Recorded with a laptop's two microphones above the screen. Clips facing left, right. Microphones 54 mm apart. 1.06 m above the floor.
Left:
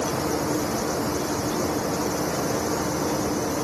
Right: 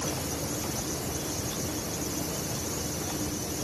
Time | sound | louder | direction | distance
0.0 | a fan | left 9 dB | 70° left (ahead or behind) | ?